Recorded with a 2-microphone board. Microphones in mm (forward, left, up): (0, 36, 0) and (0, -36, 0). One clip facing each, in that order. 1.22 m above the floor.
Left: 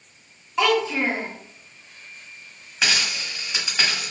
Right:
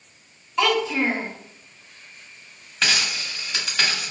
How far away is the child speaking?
About 0.9 m.